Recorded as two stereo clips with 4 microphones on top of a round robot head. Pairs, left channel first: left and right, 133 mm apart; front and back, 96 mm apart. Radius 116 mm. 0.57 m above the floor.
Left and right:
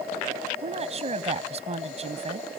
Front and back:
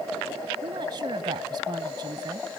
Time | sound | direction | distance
0.6 | a woman speaking | 130° right | ?